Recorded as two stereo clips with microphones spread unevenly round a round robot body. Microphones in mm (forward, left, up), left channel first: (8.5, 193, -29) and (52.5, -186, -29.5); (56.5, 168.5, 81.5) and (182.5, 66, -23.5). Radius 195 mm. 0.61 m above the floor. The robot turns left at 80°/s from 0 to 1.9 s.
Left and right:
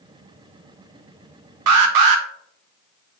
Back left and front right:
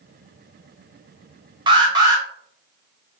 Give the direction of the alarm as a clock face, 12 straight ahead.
1 o'clock.